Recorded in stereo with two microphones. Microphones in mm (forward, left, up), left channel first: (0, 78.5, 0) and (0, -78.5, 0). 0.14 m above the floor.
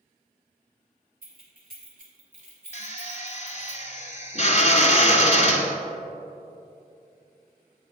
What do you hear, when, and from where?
1.2 s keys jangling: 65° right (ahead or behind), 2.5 m; by 3.7 s 40° right (ahead or behind), 1.8 m
2.7 s a drill: 45° left (ahead or behind), 0.8 m